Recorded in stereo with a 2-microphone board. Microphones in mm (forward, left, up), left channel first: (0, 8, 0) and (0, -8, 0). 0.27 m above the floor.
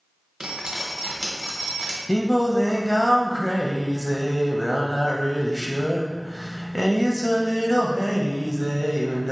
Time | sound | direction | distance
0.4 | dripping | 30° right (ahead or behind) | 1.0 m
2.1 | singing | 40° left (ahead or behind) | 0.6 m